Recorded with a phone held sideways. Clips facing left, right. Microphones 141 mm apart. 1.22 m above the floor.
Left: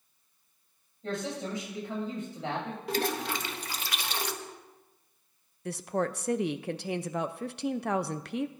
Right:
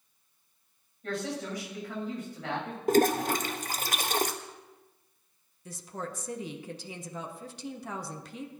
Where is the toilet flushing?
45° right (ahead or behind), 0.6 m.